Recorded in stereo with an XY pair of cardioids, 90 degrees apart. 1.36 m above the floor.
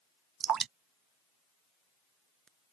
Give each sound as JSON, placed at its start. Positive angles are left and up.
{"t": 0.4, "sound": "dripping", "azimuth_deg": -60}